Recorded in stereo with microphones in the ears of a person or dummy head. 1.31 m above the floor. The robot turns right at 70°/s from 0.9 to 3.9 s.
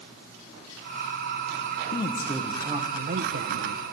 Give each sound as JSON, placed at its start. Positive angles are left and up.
{"t": 1.9, "sound": "a man speaking", "azimuth_deg": 145, "distance_m": 1.0}